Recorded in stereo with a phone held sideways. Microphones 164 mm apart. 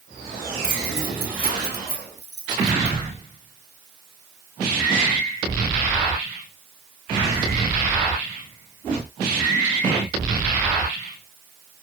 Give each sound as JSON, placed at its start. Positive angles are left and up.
{"t": 0.6, "sound": "keys jangling", "side_deg": -65, "distance_m": 5.0}